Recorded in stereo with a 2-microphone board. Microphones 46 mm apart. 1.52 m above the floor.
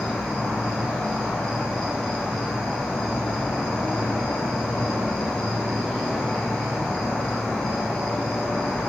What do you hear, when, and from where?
0.0 s an insect: centre (ahead or behind), 1.3 m